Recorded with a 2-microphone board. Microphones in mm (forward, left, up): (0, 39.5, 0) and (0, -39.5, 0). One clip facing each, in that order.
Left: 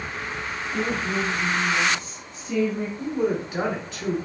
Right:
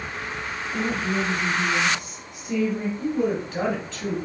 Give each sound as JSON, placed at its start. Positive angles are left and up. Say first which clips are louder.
{"t": 0.7, "sound": "a woman speaking", "louder": "right 1 dB", "side_deg": -15, "distance_m": 1.7}
{"t": 3.0, "sound": "a woman speaking", "louder": "left 1 dB", "side_deg": 10, "distance_m": 1.2}